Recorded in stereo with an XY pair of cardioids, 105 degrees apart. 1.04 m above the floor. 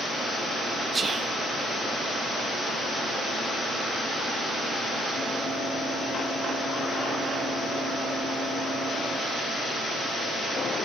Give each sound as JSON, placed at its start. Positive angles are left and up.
{"t": 0.9, "sound": "whispering", "azimuth_deg": -30, "distance_m": 0.8}